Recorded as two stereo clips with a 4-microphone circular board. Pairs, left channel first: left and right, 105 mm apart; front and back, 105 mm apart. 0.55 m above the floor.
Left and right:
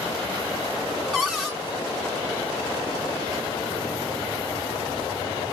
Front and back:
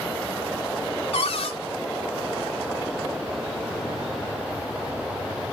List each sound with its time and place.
1.1 s a cupboard door: 5° right, 1.2 m